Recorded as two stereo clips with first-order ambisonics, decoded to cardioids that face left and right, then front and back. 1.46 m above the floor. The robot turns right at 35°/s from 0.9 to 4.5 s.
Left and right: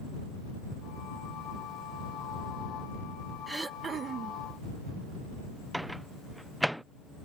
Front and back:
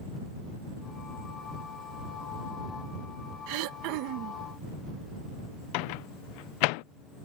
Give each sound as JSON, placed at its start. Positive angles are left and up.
{"t": 3.5, "sound": "throat clearing", "azimuth_deg": -175}
{"t": 5.7, "sound": "a microwave", "azimuth_deg": 0}